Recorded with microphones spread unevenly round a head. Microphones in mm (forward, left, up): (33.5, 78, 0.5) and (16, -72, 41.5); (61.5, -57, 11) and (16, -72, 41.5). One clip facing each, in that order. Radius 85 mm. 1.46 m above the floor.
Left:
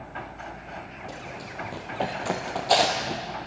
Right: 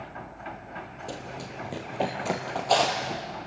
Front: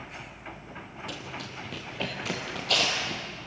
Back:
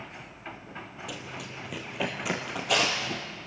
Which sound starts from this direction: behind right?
Running footsteps, at 1.1 s.